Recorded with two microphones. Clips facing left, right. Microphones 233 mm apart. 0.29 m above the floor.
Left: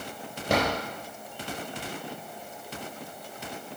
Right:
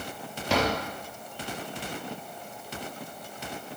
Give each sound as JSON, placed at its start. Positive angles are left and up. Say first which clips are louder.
{"t": 0.5, "sound": "a drawer", "louder": "even", "side_deg": 50, "distance_m": 4.0}